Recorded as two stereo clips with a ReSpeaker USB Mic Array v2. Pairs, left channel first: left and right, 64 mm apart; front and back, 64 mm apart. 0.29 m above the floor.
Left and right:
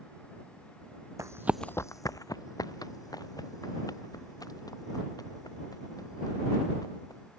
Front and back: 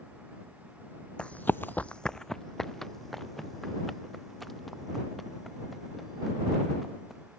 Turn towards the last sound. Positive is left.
turn(degrees=90)